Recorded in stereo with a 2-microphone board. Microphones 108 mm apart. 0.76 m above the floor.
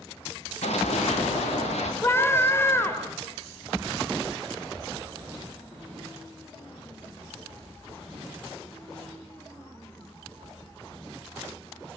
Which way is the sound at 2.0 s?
20° left (ahead or behind).